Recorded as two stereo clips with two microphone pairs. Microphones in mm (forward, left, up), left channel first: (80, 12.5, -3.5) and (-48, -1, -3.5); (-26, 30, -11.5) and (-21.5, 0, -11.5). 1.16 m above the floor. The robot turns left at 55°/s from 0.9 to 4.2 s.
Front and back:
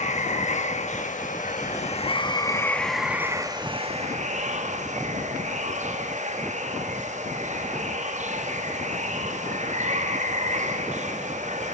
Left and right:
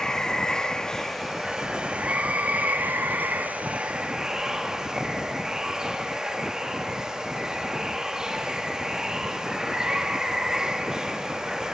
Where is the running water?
30° left, 1.4 m; by 11.8 s 150° right, 1.4 m.